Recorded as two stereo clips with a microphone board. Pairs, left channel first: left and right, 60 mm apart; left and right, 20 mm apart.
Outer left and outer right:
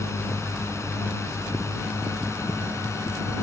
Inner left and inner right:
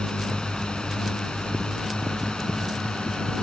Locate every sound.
0.0 s a drone: 55° left (ahead or behind)